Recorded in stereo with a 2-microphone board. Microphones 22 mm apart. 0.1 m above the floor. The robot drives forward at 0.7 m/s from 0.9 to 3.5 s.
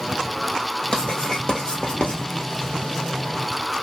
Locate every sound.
0.9 s writing: 30° left (ahead or behind), 1.9 m; by 2.2 s 45° left (ahead or behind), 1.4 m